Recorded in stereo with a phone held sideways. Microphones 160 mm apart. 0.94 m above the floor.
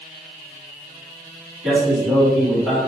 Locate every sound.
1.6 s a man speaking: centre (ahead or behind), 1.9 m